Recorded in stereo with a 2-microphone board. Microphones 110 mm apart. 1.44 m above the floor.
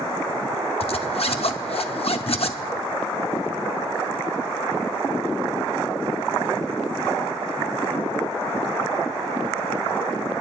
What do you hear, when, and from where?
0.8 s a zipper: 60° left (ahead or behind), 0.7 m